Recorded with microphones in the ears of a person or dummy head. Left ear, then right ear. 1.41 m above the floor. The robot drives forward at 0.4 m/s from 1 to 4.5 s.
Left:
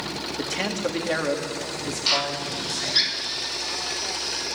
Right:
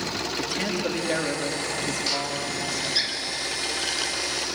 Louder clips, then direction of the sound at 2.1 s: Left 3 dB; 40° left (ahead or behind).